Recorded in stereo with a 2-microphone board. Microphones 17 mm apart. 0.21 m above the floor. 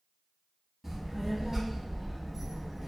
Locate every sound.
0.8 s a child speaking: 30° right (ahead or behind), 0.7 m